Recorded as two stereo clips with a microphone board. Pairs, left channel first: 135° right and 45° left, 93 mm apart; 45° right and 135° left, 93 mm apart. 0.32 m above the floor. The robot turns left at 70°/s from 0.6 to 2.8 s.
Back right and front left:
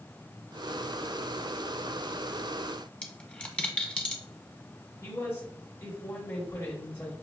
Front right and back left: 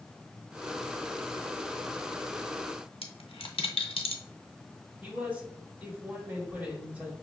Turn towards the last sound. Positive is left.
turn(degrees=-170)